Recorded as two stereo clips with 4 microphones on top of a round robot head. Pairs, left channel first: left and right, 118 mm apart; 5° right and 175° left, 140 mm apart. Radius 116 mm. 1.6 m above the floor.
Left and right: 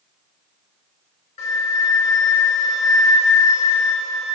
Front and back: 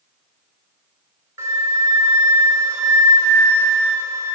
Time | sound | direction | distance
1.4 | a flute | 105° left | 0.5 m